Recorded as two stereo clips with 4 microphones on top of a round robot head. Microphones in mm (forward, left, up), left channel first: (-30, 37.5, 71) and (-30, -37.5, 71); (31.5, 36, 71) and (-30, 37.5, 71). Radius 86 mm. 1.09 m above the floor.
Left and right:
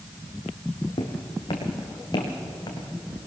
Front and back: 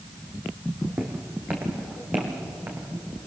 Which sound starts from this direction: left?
Footsteps, at 1.0 s.